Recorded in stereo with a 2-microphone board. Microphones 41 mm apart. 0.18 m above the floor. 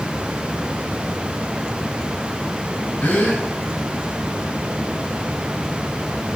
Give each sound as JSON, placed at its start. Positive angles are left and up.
{"t": 3.0, "sound": "a gasp", "side_deg": 45, "distance_m": 1.2}